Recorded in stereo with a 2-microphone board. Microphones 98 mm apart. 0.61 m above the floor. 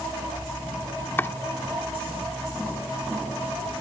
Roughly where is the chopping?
Left.